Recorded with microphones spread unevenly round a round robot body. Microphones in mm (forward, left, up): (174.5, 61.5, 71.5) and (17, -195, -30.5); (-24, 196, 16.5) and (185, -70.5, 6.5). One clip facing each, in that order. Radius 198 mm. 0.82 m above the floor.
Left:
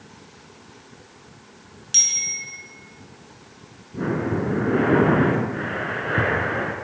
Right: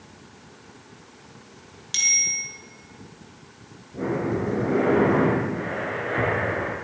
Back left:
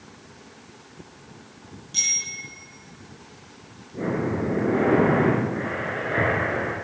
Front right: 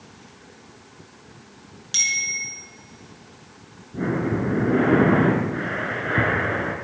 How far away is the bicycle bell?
About 7.5 m.